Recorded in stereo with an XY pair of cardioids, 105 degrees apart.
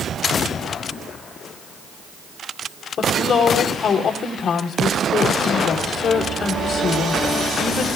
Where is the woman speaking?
55° left, 3.5 m.